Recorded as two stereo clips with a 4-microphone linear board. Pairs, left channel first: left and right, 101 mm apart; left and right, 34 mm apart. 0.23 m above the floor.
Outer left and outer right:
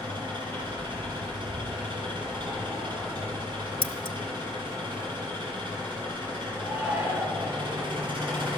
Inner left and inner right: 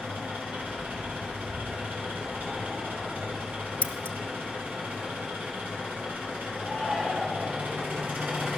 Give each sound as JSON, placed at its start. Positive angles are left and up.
{"t": 0.0, "sound": "an engine running", "side_deg": -55, "distance_m": 4.0}
{"t": 3.8, "sound": "scissors", "side_deg": 55, "distance_m": 0.6}
{"t": 6.6, "sound": "a shout", "side_deg": -20, "distance_m": 3.0}